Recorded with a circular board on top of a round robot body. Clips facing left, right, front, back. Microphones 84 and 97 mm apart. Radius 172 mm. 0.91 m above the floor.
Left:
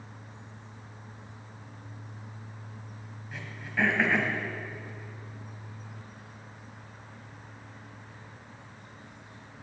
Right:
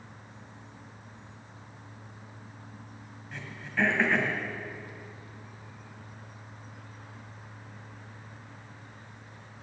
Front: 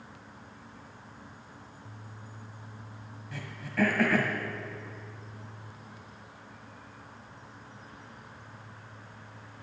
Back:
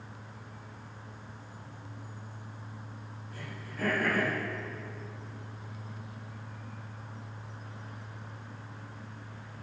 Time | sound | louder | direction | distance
3.3 | throat clearing | even, front 10 dB | 5° left | 1.6 m